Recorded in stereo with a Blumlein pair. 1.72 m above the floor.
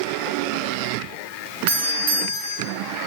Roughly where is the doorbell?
Ahead right.